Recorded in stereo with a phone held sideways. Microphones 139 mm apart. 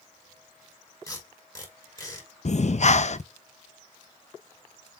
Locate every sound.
1.1 s tape being pulled: 25° left (ahead or behind), 5 m
2.5 s breathing: 55° left (ahead or behind), 0.6 m